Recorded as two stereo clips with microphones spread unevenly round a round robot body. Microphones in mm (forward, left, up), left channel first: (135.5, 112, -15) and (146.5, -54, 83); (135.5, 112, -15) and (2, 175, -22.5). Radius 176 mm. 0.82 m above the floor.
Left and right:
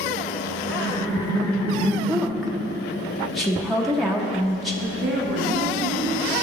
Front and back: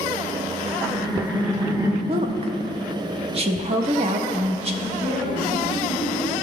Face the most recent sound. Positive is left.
turn(degrees=-90)